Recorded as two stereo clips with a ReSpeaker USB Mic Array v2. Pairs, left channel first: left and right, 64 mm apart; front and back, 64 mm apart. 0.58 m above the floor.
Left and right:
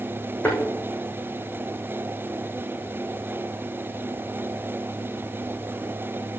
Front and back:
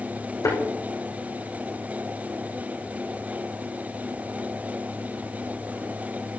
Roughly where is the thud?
Ahead left.